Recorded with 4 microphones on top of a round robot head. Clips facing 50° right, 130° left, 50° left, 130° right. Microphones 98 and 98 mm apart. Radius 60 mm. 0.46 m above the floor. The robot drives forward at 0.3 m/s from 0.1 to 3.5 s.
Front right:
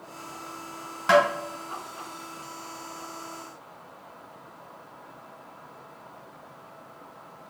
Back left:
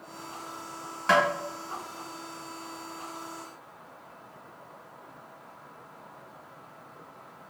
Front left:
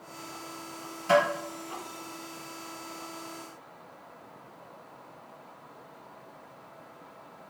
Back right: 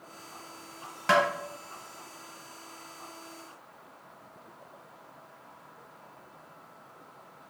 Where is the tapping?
120° right, 1.3 m; by 1.2 s 125° right, 1.3 m.